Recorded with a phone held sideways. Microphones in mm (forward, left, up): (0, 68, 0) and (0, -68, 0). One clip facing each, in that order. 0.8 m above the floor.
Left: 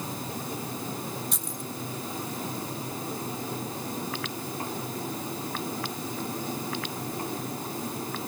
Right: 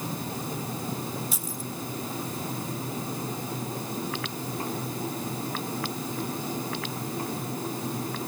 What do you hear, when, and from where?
1.3 s keys jangling: 5° right (ahead or behind), 1.5 m